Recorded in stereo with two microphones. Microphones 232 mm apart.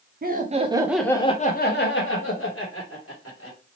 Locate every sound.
0.2 s laughter: 40° right (ahead or behind), 0.7 m; by 3.6 s 70° left (ahead or behind), 1.6 m